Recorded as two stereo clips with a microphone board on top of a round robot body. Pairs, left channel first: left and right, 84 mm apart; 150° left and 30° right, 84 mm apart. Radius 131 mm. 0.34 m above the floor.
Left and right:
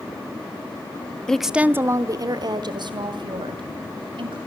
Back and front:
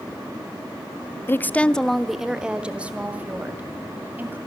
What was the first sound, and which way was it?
A woman speaking, 160° left.